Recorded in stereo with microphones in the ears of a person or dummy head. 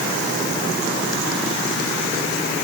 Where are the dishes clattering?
No dishes clattering in this recording.